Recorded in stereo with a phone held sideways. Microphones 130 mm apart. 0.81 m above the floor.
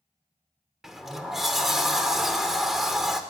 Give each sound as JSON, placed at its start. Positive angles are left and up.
{"t": 0.8, "sound": "a sliding door", "side_deg": 0, "distance_m": 0.6}